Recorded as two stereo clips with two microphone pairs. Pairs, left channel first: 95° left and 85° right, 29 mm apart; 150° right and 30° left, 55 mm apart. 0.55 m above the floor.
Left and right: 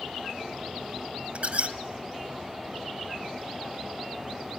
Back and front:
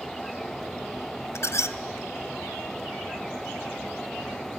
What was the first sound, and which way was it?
A squeak, 120° right.